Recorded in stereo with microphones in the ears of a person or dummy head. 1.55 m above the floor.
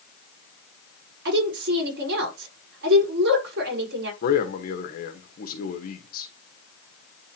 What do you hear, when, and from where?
1.2 s a woman speaking: 70° right (ahead or behind), 5 m
4.2 s a man speaking: 55° left (ahead or behind), 1.7 m